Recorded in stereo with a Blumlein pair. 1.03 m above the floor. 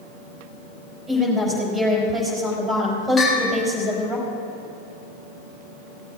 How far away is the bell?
About 3.5 m.